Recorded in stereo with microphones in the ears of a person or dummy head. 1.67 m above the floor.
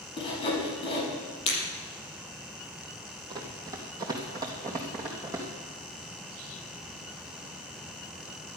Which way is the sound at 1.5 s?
30° left (ahead or behind).